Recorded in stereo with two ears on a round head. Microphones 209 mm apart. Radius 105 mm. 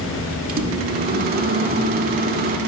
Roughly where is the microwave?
Right.